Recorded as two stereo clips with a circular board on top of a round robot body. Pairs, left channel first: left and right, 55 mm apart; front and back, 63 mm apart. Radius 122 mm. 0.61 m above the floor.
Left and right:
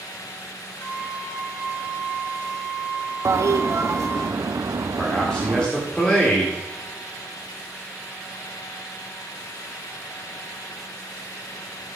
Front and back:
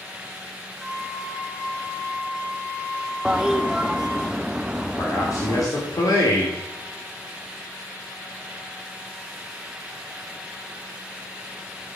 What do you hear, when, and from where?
0.8 s a flute: 60° left, 4.5 m
3.2 s a toilet flushing: 100° right, 0.7 m
5.0 s a man speaking: 20° left, 2.5 m